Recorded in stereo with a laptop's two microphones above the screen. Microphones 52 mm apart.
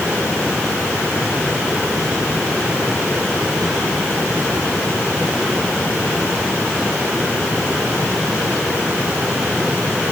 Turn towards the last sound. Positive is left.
No sound to turn to.